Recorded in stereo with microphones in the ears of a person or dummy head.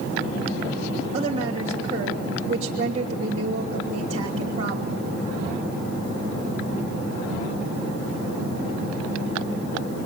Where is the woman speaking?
25° right (ahead or behind), 3 m.